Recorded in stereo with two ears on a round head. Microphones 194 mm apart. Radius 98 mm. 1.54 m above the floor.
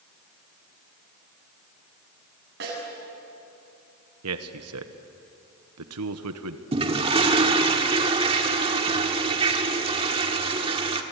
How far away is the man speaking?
About 1.4 m.